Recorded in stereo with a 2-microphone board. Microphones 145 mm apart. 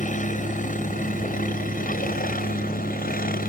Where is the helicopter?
60° left (ahead or behind); by 3.5 s 75° left (ahead or behind).